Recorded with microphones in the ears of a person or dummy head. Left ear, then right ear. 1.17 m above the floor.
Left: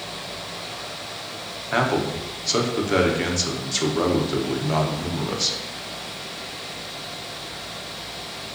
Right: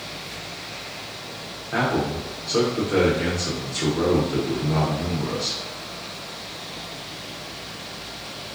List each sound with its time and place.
1.7 s a man speaking: 70° left (ahead or behind), 0.7 m